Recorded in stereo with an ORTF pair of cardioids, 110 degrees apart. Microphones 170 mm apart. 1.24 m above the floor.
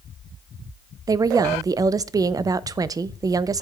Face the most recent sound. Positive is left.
turn(degrees=-20)